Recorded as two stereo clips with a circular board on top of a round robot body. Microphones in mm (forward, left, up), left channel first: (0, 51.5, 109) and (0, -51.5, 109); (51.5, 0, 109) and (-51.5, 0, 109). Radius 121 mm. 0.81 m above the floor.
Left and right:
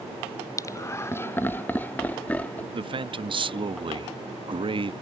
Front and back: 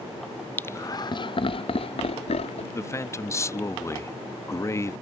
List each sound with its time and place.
0.6 s laughter: 60° left; by 2.6 s 15° left
2.7 s a man speaking: 60° right